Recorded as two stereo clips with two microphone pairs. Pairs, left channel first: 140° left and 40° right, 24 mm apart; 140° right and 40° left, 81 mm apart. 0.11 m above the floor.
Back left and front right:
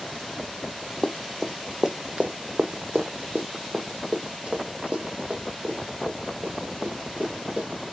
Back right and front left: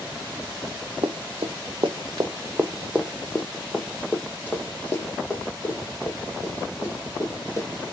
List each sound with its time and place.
1.0 s running footsteps: 45° left, 0.8 m; by 7.7 s 80° right, 3 m